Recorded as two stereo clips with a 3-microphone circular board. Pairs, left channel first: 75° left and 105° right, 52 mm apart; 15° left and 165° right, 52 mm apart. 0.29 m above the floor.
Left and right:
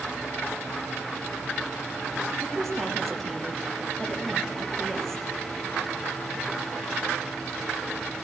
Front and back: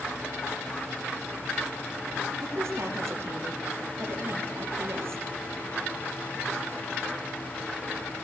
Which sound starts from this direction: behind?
A woman speaking, at 2.4 s.